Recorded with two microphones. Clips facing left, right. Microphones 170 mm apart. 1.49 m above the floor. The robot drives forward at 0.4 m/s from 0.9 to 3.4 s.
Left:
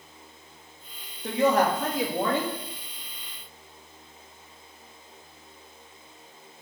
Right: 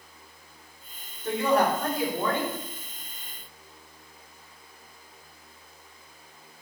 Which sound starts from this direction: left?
A woman speaking, at 1.2 s.